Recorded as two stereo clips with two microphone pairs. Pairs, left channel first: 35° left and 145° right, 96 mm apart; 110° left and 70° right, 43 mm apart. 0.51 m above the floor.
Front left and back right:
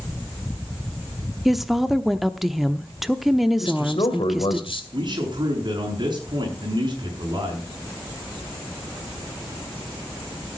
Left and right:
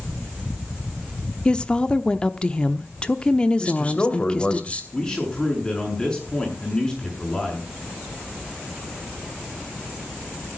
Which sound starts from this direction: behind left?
A woman speaking, at 1.4 s.